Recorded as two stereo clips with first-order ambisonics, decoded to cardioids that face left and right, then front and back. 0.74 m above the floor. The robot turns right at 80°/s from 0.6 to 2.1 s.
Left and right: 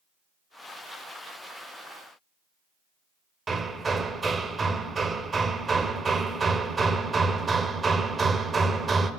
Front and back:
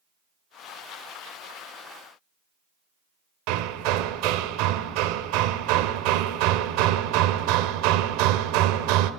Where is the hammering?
165° right, 1.3 m.